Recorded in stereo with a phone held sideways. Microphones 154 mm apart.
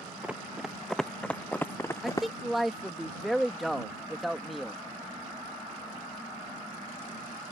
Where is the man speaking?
Centre (ahead or behind).